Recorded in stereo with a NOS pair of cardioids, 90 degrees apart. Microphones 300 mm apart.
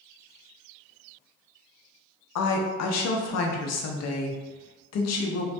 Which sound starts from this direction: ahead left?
A woman speaking, at 2.4 s.